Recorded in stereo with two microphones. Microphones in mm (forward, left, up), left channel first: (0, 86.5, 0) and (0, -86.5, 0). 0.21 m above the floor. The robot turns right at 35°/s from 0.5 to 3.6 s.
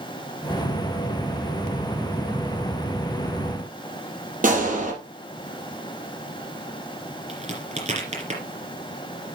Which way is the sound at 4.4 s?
50° right (ahead or behind).